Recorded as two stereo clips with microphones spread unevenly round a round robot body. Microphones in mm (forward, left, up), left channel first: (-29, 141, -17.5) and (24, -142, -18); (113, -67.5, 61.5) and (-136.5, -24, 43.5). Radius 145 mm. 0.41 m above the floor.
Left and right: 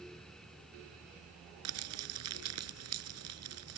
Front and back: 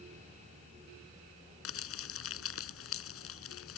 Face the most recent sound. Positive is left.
turn(degrees=-40)